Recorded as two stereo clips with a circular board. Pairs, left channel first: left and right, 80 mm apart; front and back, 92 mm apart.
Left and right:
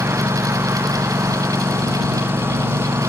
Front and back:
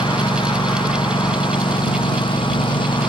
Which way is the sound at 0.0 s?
25° right.